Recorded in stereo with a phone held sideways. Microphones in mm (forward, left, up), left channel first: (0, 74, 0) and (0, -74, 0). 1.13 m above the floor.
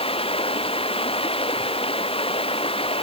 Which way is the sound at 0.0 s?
40° left (ahead or behind).